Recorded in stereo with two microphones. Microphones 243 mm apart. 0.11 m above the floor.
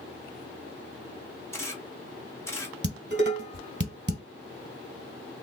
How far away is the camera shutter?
About 1.7 m.